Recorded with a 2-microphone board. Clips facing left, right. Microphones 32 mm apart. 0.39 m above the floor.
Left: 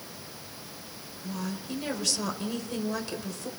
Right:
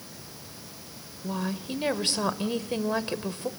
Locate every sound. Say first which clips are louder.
1.2 s a woman speaking: right 4 dB; 35° right (ahead or behind), 1.7 m